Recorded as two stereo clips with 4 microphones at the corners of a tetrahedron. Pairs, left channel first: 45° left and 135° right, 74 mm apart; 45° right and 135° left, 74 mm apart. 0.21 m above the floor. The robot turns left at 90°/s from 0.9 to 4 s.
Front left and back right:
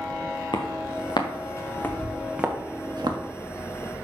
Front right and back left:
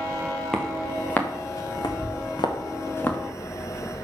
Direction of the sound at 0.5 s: 35° left.